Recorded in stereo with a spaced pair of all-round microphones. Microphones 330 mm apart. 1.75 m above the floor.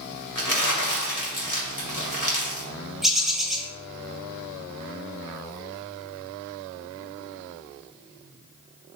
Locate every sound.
0.3 s crumpling: 65° left (ahead or behind), 2.5 m
3.0 s a bird: centre (ahead or behind), 1.6 m